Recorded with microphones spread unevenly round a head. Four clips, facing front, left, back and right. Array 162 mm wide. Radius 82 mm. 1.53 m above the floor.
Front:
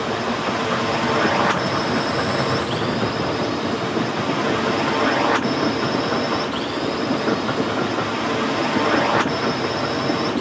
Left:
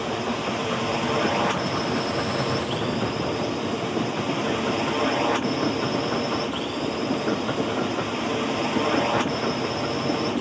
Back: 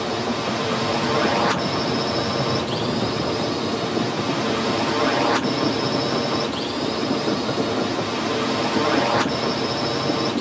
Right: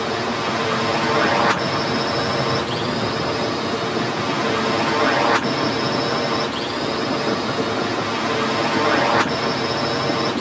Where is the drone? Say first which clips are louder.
Right 4 dB, front 1 dB; 100° right.